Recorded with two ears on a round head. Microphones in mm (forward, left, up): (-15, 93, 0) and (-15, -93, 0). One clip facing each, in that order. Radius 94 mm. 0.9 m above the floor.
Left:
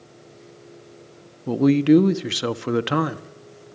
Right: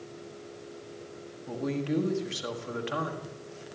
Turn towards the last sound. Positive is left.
turn(degrees=70)  # may be behind; listen again after turning